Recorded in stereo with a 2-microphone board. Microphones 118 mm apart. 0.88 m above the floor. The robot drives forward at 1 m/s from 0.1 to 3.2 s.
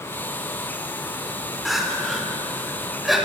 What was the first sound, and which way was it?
Crying, centre (ahead or behind).